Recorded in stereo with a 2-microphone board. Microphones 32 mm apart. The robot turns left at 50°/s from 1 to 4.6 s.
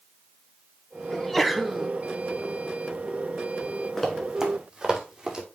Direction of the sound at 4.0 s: 10° left (ahead or behind).